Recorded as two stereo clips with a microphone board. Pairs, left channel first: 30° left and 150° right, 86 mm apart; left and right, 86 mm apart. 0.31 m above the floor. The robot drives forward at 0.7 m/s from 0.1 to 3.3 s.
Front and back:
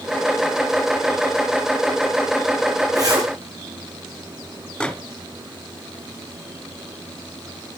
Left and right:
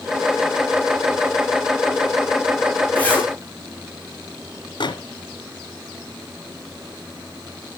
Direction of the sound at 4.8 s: 110° left.